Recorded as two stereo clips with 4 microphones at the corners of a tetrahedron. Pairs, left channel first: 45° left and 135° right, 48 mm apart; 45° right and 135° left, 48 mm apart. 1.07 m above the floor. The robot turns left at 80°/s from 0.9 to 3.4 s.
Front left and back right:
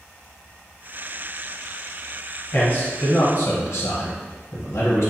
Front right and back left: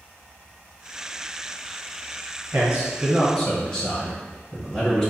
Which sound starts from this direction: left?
A man speaking, at 2.5 s.